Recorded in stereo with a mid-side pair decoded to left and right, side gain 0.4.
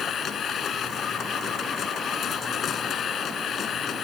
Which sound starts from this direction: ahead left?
A machine running, at 0.0 s.